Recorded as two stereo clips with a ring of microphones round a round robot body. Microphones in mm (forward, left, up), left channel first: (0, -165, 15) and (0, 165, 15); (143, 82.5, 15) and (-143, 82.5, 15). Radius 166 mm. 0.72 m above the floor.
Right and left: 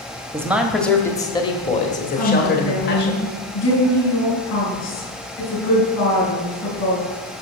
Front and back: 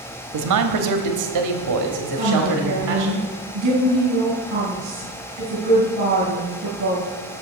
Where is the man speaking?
170° left, 1.2 m; by 3.1 s 145° right, 2 m.